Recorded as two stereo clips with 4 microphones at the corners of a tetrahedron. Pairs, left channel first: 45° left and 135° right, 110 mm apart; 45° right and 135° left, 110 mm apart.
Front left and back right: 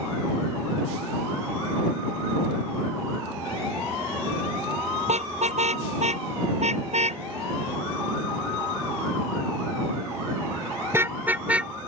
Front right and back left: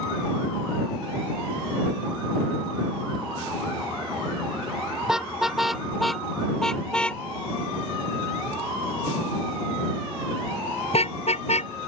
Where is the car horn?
140° right; by 11.9 s 50° right.